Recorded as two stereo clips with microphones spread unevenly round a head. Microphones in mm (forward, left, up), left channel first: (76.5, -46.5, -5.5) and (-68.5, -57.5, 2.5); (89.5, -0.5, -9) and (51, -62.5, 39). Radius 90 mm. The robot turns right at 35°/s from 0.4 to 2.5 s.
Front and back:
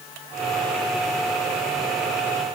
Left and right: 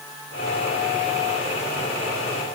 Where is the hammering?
I don't hear hammering.